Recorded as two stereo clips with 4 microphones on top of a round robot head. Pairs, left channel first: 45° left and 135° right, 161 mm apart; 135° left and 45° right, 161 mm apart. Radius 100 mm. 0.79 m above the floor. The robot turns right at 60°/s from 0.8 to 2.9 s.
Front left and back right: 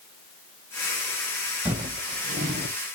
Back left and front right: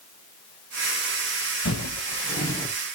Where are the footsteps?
145° left, 2.0 m; by 2.8 s 140° right, 0.9 m.